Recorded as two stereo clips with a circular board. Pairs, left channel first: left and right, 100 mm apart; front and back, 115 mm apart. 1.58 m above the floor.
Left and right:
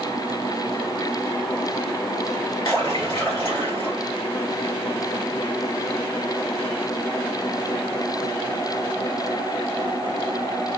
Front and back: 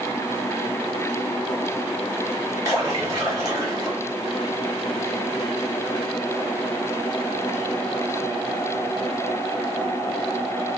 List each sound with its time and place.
2.6 s a splash: 125° left, 1.2 m